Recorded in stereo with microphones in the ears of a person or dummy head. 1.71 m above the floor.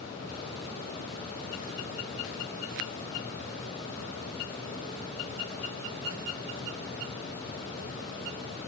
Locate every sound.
Only background noise.